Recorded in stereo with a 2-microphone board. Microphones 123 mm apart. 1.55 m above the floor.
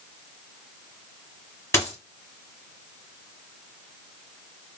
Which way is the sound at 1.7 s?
20° left (ahead or behind).